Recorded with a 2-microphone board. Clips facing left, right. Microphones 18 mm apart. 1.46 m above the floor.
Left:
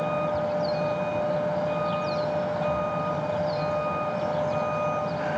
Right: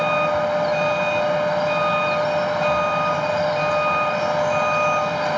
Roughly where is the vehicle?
Right.